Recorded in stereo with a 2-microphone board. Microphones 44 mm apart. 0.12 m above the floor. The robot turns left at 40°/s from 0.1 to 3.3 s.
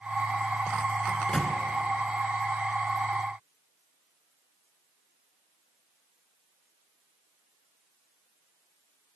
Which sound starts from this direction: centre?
A microwave, at 1.1 s.